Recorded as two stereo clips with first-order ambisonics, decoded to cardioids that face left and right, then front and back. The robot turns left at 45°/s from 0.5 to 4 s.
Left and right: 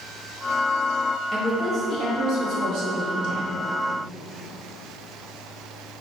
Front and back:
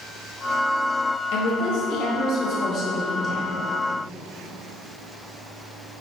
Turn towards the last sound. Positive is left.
turn(degrees=-130)